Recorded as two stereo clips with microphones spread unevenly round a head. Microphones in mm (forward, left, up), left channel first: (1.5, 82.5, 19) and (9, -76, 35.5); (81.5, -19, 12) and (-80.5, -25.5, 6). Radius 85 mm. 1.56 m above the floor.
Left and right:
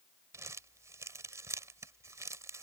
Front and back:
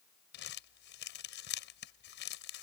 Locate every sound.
0.3 s crumpling: 15° right